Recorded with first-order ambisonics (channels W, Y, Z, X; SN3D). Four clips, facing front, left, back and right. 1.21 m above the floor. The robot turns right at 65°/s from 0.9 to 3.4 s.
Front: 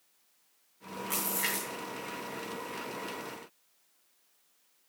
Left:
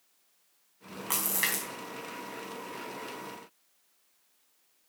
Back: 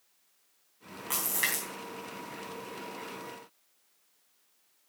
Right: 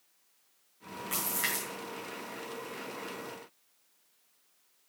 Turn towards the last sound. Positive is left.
turn(degrees=-105)